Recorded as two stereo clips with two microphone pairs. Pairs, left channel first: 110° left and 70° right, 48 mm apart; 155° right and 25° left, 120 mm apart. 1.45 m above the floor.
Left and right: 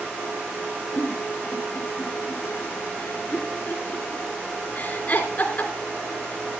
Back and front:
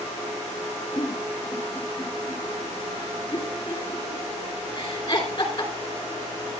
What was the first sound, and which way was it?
A giggle, 155° left.